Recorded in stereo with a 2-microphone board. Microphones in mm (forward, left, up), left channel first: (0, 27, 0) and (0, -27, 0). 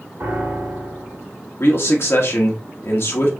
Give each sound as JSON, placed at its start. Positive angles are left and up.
{"t": 0.2, "sound": "a piano", "side_deg": -50, "distance_m": 1.8}
{"t": 1.6, "sound": "a man speaking", "side_deg": 55, "distance_m": 1.0}